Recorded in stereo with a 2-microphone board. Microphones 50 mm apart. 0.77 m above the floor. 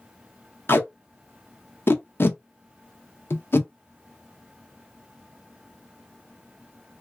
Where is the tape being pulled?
50° left (ahead or behind), 0.7 m.